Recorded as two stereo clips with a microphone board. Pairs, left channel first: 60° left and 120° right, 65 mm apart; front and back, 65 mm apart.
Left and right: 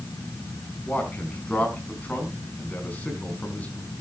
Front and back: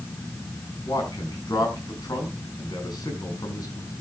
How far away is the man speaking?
About 4.5 m.